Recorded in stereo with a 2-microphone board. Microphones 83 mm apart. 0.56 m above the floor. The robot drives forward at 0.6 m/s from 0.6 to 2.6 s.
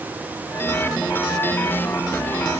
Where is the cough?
No cough in this recording.